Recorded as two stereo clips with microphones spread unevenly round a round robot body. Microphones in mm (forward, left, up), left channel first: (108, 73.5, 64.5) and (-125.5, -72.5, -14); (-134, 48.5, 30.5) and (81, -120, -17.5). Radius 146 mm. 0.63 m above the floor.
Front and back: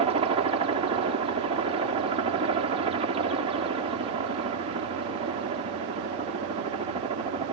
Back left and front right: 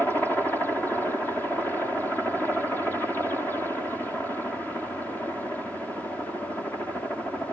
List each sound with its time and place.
0.0 s a helicopter: 125° right